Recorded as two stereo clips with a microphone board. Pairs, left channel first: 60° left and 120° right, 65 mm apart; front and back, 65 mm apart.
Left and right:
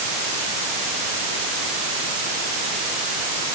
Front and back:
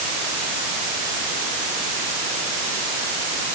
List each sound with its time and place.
Only background noise.